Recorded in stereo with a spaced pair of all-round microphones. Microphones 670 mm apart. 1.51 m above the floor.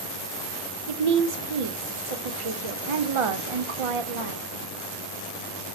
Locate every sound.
0.9 s a woman speaking: 50° right (ahead or behind), 0.6 m